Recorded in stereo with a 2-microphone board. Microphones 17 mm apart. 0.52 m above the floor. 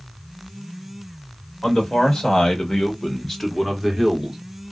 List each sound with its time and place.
1.6 s a man speaking: 50° left (ahead or behind), 1.7 m; by 4.4 s 15° right (ahead or behind), 1.0 m